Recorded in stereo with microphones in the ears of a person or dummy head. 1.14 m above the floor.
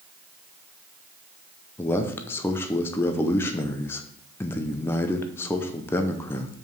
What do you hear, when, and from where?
1.8 s a man speaking: 10° left (ahead or behind), 0.6 m